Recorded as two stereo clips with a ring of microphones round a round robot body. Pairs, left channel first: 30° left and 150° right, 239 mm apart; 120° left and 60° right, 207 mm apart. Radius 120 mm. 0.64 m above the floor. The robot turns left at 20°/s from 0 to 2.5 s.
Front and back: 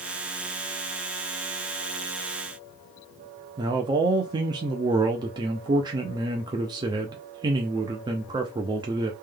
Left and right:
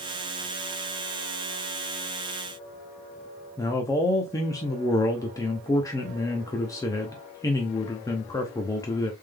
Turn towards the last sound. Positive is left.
turn(degrees=170)